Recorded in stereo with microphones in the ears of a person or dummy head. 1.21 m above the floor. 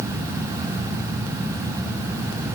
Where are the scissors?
I don't hear scissors.